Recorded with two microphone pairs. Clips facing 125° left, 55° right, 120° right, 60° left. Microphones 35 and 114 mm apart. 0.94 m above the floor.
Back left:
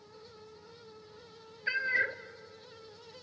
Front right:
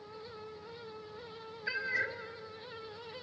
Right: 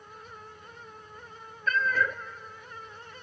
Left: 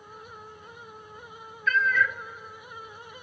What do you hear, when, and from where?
1.7 s a cat meowing: 165° right, 0.6 m